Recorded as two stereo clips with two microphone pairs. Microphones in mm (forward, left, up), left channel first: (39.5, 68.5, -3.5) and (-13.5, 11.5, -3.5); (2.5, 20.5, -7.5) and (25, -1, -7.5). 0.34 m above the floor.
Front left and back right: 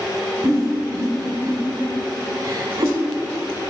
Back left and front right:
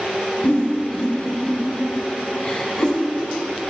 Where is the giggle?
Straight behind, 3 m.